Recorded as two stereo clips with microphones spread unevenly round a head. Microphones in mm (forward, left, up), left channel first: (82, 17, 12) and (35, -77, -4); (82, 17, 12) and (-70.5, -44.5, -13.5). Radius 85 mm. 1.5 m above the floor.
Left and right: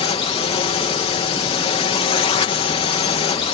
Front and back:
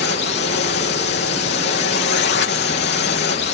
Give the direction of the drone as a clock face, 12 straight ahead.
11 o'clock.